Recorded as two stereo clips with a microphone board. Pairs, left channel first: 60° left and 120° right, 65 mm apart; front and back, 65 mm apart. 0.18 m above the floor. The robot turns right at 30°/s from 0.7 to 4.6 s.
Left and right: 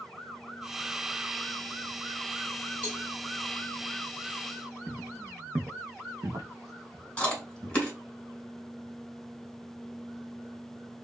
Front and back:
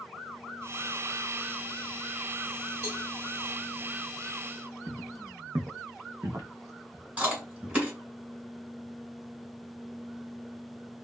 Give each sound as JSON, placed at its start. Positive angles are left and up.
{"t": 2.8, "sound": "a cowbell", "azimuth_deg": 175, "distance_m": 2.0}
{"t": 4.9, "sound": "footsteps", "azimuth_deg": 170, "distance_m": 0.6}
{"t": 7.2, "sound": "chewing", "azimuth_deg": 120, "distance_m": 1.1}